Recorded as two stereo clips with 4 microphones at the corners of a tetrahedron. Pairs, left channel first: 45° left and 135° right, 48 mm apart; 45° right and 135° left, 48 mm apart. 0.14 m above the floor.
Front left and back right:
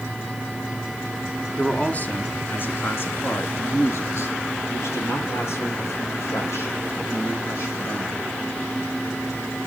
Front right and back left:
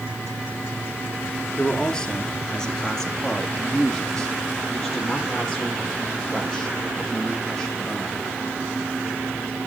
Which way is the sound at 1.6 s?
10° left.